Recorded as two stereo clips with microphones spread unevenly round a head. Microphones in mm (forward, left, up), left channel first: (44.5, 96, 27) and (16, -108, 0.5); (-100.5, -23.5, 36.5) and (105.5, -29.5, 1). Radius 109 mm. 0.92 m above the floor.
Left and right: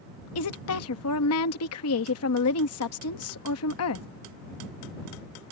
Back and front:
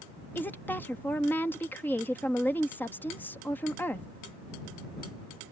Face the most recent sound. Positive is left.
turn(degrees=95)